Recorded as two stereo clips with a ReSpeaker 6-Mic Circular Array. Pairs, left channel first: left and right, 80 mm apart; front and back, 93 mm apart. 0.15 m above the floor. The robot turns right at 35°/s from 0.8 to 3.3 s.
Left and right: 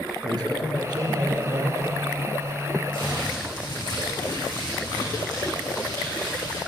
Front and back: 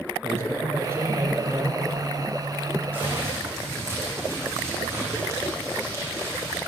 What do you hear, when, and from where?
0.2 s a man speaking: 120° right, 5 m; by 1.8 s 85° right, 5 m
2.9 s crumpling: 105° left, 10 m; by 6.6 s 120° left, 10 m